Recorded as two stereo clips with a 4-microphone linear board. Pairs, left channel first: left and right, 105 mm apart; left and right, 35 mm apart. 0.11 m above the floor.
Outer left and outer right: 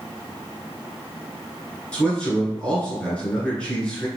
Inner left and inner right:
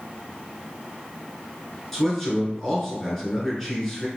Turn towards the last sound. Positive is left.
turn(degrees=10)  # may be behind; listen again after turning